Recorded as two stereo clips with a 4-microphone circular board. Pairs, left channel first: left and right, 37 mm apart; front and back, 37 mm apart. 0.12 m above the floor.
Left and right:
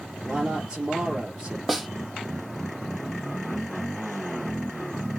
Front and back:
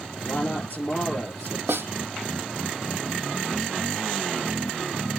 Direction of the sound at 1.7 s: Straight behind.